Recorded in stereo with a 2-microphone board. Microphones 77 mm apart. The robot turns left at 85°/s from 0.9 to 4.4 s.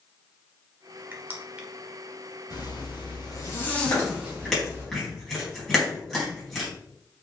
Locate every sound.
1.1 s crushing: 25° right (ahead or behind), 1.4 m; by 1.7 s 10° right (ahead or behind), 1.4 m
2.5 s a zipper: 125° left, 3 m; by 4.8 s 35° right, 3 m
3.9 s chewing: 45° left (ahead or behind), 4 m; by 6.7 s 5° left (ahead or behind), 4 m